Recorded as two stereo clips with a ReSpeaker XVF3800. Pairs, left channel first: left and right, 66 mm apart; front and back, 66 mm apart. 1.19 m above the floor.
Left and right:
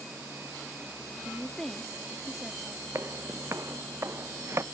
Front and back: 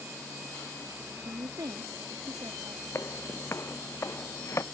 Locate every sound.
1.2 s a woman speaking: straight behind
3.0 s footsteps: 45° right